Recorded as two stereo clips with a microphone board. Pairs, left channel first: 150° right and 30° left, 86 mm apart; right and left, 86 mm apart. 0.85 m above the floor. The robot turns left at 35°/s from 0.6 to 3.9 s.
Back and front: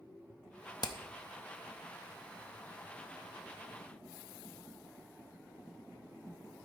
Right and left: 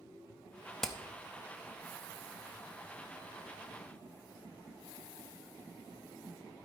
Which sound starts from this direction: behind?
Hammering, at 0.8 s.